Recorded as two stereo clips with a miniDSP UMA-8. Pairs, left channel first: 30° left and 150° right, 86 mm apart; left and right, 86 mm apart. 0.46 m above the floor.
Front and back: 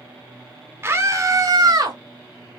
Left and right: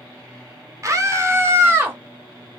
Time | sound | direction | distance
0.8 | a scream | 105° right | 1.0 m